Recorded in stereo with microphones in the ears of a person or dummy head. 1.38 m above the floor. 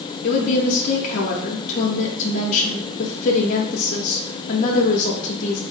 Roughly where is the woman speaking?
Left.